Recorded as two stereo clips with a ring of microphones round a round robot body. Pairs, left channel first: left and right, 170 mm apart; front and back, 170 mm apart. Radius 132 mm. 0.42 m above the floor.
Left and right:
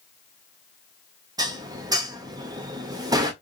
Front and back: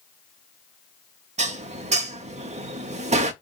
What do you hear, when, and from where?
1.4 s dishes clattering: 150° right, 0.8 m